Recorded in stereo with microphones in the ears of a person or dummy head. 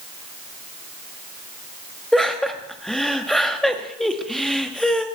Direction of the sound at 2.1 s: 5° left (ahead or behind).